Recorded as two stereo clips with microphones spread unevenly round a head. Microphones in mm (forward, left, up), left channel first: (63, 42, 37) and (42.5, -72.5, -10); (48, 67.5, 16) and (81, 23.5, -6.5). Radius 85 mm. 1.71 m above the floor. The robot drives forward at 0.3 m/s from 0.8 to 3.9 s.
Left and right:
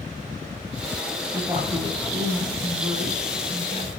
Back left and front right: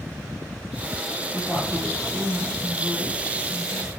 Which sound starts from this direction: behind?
A woman speaking, at 1.3 s.